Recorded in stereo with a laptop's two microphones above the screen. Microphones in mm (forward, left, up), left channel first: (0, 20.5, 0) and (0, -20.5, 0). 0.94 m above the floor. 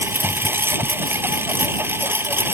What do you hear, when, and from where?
0.0 s a lawn mower: 70° right (ahead or behind)